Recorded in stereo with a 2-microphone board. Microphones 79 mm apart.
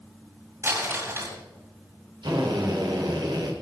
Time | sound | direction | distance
0.6 | crumpling | 30° right (ahead or behind) | 8.5 m
2.2 | a drill | 70° right (ahead or behind) | 3.5 m